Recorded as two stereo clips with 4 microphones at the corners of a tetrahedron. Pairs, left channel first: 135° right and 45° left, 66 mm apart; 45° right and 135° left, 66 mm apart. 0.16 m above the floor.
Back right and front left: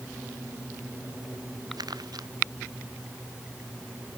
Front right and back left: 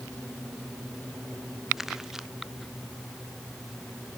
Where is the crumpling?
50° left.